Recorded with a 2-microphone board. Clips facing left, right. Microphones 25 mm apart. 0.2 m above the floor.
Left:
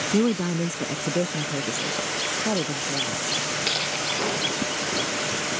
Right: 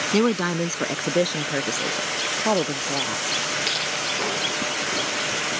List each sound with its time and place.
0.1 s a woman speaking: 45° right (ahead or behind); by 3.2 s 75° right (ahead or behind)